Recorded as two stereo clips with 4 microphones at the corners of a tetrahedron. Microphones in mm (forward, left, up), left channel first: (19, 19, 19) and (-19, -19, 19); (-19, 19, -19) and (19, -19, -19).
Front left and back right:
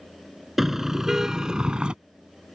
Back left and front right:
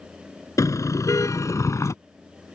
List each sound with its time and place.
0.6 s a car horn: 140° left; by 1.9 s 155° left